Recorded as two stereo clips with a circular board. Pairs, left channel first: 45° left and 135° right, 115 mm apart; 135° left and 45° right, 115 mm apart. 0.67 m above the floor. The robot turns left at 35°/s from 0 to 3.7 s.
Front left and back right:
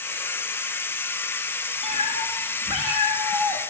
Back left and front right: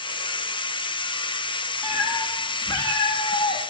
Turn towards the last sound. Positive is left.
turn(degrees=165)